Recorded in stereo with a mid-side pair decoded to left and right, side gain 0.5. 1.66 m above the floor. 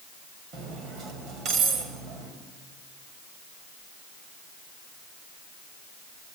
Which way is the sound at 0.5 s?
65° right.